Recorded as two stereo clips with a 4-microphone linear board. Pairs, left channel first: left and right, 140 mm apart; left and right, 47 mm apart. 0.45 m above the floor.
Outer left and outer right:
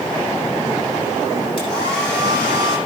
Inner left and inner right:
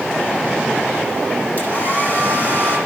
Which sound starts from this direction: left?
A hair dryer, at 1.6 s.